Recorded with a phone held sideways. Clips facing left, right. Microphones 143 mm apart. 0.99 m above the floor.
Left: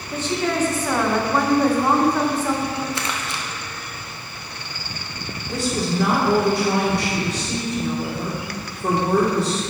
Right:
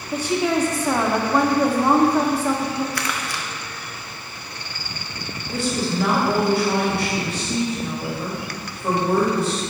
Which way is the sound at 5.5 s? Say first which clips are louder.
Even; 70° left (ahead or behind).